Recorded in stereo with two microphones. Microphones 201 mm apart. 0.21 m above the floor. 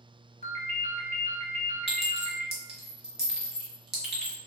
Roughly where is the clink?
Right.